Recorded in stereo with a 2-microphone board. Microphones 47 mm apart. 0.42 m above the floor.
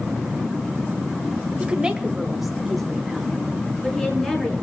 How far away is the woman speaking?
About 1.6 m.